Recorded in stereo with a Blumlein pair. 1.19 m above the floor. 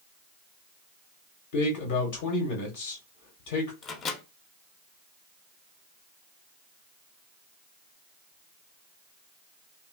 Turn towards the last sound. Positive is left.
turn(degrees=25)